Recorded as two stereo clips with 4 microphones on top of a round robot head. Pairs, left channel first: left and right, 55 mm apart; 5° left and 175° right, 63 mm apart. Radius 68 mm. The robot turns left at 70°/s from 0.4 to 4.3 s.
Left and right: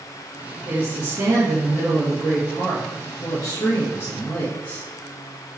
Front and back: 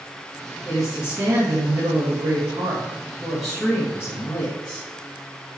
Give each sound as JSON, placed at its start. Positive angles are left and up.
{"t": 0.7, "sound": "a woman speaking", "azimuth_deg": -75, "distance_m": 1.7}